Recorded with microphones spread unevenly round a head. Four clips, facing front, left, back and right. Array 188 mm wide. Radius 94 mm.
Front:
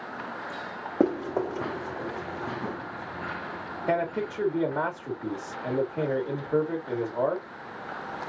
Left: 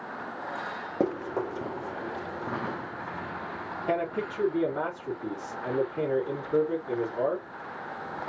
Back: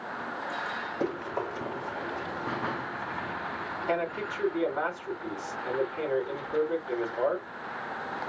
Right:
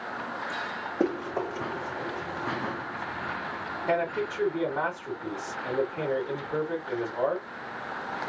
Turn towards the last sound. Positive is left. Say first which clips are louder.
# right 2 dB, front 4 dB
turn(degrees=5)